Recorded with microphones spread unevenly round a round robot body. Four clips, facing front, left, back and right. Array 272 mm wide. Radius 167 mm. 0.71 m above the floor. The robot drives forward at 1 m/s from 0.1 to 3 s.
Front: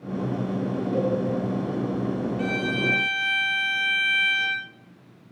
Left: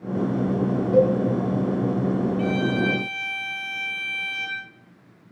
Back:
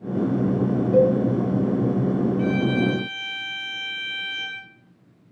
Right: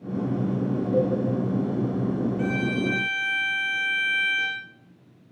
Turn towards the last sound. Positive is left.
turn(degrees=-125)